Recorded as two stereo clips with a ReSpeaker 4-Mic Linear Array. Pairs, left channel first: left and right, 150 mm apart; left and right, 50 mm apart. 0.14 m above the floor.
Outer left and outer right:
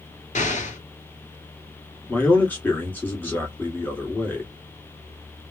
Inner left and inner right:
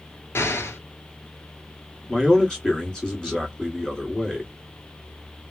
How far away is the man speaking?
About 1.7 m.